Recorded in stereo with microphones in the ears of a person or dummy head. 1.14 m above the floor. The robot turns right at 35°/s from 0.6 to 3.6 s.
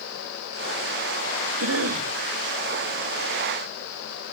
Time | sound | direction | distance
1.6 | a cough | 75° right (ahead or behind) | 1.9 m